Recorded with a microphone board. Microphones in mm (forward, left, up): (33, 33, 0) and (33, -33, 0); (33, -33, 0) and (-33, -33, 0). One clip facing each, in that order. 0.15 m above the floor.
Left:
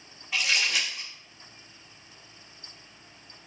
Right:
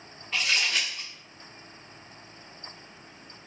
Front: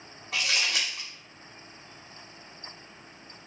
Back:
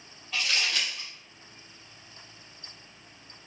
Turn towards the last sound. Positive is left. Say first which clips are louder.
# even, front 1 dB
turn(degrees=10)